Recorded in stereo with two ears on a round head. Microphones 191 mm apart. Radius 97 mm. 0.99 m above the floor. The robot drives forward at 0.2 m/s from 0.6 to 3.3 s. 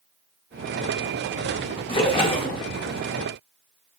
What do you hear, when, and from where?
1.9 s a splash: 25° left (ahead or behind), 0.6 m; by 2.6 s 20° left (ahead or behind), 0.7 m